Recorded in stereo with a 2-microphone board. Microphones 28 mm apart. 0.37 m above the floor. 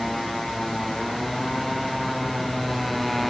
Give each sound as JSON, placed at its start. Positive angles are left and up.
{"t": 0.0, "sound": "a motorcycle", "side_deg": 5}